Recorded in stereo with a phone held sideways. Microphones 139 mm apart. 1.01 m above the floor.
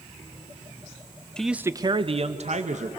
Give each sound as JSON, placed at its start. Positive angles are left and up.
{"t": 1.4, "sound": "a man speaking", "side_deg": 5, "distance_m": 0.6}